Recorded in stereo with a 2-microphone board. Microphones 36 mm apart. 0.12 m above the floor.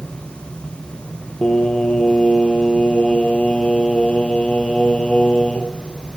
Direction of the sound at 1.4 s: 30° left (ahead or behind).